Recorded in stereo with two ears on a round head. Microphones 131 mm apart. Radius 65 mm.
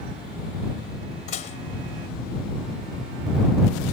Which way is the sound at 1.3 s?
50° left (ahead or behind).